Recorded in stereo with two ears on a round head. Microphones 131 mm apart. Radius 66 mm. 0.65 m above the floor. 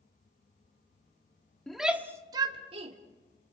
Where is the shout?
5° left (ahead or behind), 1.4 m; by 3.0 s 45° right (ahead or behind), 1.8 m.